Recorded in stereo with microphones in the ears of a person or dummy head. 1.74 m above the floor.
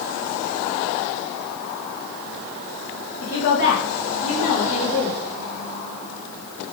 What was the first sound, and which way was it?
A woman speaking, 55° left (ahead or behind).